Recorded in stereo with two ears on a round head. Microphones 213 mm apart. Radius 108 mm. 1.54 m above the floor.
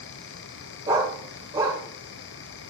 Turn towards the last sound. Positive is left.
turn(degrees=-15)  # may be behind; listen again after turning